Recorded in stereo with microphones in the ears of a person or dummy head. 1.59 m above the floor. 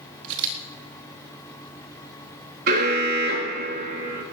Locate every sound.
0.2 s a camera shutter: 65° right (ahead or behind), 3.5 m
2.7 s an alarm: 55° right (ahead or behind), 3.5 m